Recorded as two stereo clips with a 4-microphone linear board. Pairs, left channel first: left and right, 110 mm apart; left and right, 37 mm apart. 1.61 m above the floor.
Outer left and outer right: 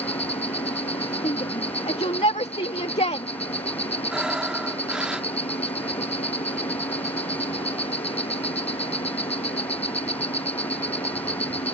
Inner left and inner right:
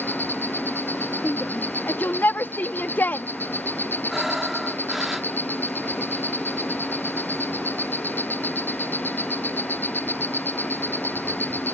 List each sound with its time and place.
0.0 s an insect: 65° left (ahead or behind)
1.2 s a shout: 75° left (ahead or behind)
4.1 s breathing: 10° right (ahead or behind)